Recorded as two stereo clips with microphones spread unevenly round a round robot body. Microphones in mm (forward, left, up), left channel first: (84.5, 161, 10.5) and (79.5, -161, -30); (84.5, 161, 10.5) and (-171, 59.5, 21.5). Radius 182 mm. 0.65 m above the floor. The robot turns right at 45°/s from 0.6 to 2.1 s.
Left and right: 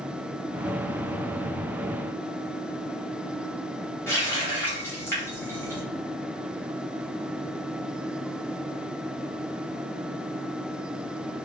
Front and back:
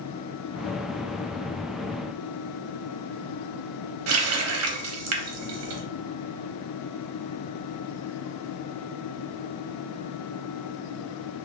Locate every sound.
4.1 s a running tap: 175° left, 0.7 m